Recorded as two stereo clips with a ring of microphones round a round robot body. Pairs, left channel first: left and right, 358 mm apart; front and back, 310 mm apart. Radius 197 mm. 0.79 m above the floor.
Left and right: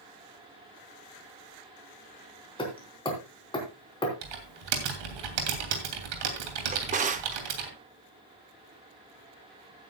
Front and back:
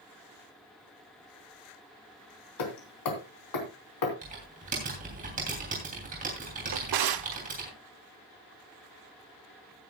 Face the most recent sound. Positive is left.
turn(degrees=-160)